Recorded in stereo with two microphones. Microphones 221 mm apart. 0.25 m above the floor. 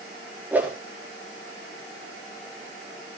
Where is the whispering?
No whispering in this recording.